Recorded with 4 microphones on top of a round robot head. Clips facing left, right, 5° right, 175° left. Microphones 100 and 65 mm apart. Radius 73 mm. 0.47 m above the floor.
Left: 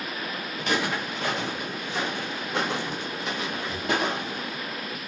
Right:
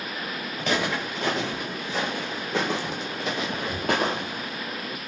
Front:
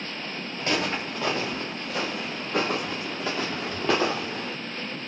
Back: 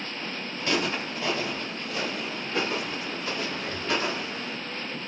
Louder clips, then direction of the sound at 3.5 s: Right 1 dB, front 6 dB; 130° right.